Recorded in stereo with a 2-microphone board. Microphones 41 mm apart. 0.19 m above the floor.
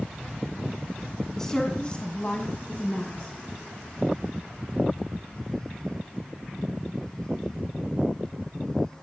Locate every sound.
1.4 s a woman speaking: 10° left (ahead or behind), 1.7 m; by 3.3 s 30° left (ahead or behind), 2.0 m